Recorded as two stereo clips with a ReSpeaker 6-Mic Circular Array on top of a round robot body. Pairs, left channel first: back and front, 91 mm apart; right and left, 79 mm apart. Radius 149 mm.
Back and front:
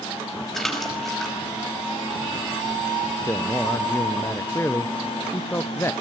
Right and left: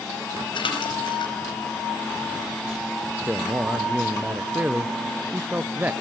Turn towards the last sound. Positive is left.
turn(degrees=140)